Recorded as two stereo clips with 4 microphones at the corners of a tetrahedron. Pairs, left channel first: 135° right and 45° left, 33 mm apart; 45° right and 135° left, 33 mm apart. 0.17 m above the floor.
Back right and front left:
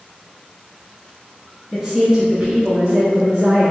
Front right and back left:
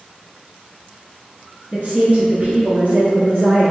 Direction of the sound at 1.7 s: 105° left.